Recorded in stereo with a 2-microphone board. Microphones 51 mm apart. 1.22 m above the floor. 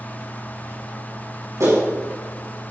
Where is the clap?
85° right, 6 m.